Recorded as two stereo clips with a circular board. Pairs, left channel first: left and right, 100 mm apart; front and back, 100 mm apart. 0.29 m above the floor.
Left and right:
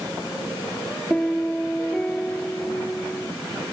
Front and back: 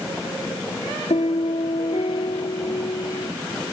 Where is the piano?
10° left.